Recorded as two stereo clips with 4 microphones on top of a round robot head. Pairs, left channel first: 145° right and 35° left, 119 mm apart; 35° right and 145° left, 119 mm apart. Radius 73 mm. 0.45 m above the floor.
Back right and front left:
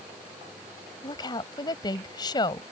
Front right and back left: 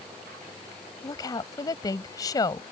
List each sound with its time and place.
1.0 s a woman speaking: 90° right